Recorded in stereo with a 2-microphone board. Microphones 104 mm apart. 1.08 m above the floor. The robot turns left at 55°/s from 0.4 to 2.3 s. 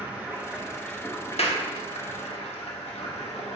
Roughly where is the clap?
Left.